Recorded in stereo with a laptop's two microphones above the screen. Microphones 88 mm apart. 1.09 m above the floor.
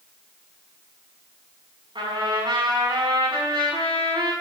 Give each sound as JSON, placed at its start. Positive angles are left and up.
{"t": 1.9, "sound": "a trumpet", "side_deg": -70, "distance_m": 5.5}